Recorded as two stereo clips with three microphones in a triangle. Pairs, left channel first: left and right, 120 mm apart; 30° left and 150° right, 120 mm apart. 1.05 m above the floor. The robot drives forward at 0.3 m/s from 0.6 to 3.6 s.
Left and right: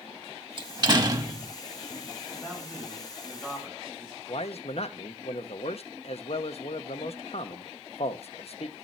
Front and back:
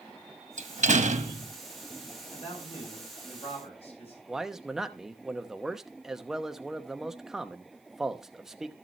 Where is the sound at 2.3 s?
Straight ahead, 7 m.